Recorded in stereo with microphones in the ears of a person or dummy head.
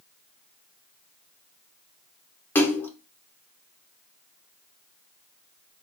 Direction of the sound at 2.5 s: 15° left (ahead or behind).